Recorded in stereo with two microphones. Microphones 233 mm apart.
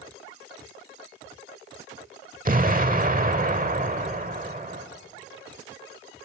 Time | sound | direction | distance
2.5 | an explosion | 35° right (ahead or behind) | 1.1 m